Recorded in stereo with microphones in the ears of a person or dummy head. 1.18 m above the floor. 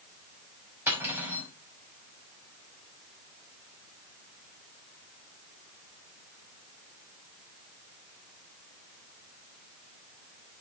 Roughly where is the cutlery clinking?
Centre.